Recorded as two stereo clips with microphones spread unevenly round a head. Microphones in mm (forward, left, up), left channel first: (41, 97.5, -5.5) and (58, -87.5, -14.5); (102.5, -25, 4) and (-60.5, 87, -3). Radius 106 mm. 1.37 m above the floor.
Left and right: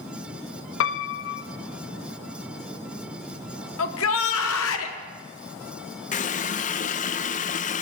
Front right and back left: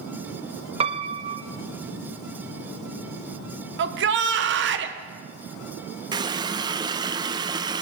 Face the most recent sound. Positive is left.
turn(degrees=80)